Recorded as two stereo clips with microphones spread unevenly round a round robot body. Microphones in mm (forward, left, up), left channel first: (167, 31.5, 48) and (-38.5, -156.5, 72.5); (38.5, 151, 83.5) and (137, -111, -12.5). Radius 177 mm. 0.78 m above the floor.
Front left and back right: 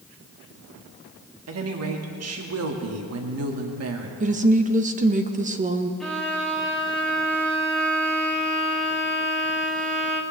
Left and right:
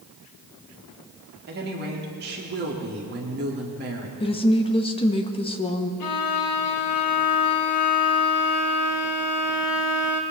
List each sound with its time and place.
1.5 s a woman speaking: 110° right, 1.7 m
4.2 s a woman speaking: 160° right, 0.9 m
6.0 s a violin: 130° left, 1.2 m